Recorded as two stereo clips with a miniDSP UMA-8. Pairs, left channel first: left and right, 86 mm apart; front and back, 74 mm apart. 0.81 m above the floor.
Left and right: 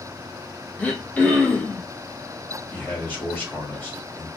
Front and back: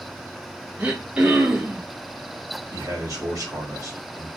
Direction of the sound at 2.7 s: 155° left.